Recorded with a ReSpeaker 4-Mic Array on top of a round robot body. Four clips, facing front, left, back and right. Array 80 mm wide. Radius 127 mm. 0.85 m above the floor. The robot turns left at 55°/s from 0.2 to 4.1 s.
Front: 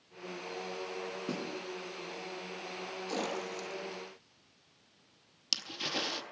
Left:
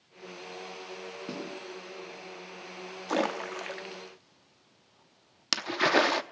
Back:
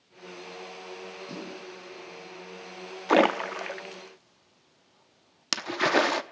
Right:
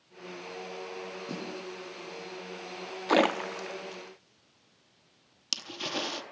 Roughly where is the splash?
Behind.